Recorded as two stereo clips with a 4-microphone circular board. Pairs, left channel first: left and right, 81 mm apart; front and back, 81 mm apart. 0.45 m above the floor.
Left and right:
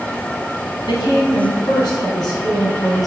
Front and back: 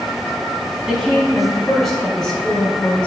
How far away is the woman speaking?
About 4 m.